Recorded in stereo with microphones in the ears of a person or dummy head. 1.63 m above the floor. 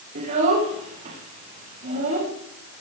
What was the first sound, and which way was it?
A child speaking, 35° right (ahead or behind).